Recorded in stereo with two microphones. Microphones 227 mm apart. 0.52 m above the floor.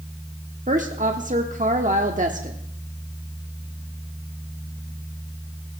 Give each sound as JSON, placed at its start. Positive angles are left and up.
{"t": 0.7, "sound": "a woman speaking", "side_deg": -35, "distance_m": 1.0}